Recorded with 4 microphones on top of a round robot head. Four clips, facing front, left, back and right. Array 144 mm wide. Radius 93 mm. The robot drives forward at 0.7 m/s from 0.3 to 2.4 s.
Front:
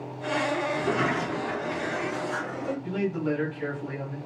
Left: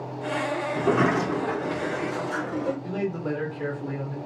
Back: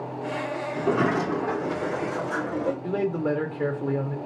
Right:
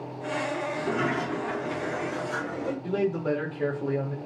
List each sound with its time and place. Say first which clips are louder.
0.8 s a sliding door: left 8 dB, back 3 dB; 110° left, 0.7 m; by 2.7 s 165° left, 1.4 m
2.8 s a man speaking: right 2 dB, back 3 dB; 165° right, 2.5 m